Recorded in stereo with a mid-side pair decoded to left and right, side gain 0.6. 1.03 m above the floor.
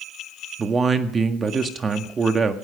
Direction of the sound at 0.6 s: 30° right.